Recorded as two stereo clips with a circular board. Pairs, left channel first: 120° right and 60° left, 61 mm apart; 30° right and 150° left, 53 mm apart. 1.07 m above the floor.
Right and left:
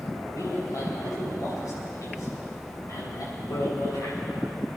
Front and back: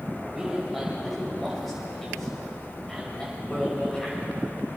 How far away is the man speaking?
About 6.5 m.